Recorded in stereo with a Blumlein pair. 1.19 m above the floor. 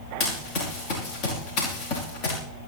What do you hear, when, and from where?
0.2 s running footsteps: 40° left, 5 m